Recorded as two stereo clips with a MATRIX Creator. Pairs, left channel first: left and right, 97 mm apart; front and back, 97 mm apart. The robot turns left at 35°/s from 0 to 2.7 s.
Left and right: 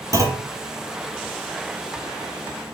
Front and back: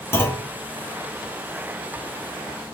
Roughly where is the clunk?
Ahead right.